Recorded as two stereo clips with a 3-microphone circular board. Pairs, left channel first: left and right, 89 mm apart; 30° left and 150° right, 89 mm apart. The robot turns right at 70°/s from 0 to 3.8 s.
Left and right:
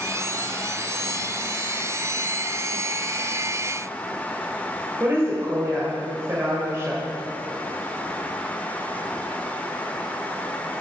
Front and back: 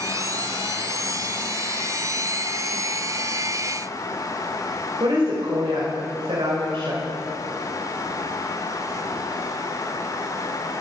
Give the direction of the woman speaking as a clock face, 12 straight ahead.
5 o'clock.